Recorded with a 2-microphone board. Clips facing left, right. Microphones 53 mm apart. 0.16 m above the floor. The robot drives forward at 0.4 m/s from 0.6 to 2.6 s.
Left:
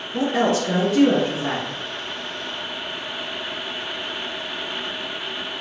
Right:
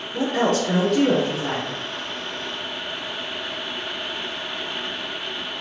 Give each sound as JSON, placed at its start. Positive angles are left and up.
{"t": 0.1, "sound": "a woman speaking", "side_deg": 10, "distance_m": 1.4}